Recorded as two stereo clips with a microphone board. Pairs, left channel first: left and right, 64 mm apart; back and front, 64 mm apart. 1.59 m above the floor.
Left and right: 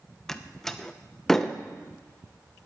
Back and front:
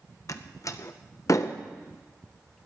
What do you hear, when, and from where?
0.3 s a door slam: 175° left, 0.8 m